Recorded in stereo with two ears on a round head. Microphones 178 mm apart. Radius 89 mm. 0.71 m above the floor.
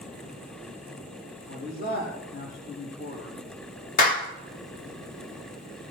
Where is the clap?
45° left (ahead or behind), 1.5 m.